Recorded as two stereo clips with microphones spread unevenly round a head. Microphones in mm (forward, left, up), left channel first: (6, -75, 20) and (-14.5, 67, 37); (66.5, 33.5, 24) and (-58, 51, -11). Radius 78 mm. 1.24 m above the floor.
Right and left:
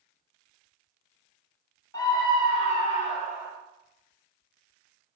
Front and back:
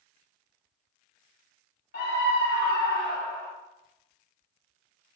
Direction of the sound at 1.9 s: 20° right.